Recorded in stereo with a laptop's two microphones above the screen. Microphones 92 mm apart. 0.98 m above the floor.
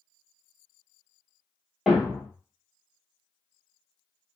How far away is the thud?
About 1.0 m.